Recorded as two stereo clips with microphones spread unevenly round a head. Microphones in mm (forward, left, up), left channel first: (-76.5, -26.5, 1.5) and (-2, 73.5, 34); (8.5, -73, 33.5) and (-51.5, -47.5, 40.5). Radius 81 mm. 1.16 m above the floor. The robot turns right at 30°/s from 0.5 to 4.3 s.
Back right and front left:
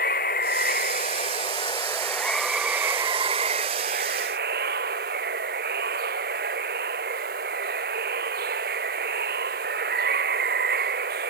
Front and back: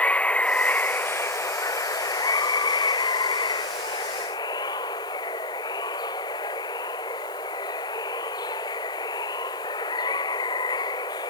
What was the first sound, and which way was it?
Running water, 95° right.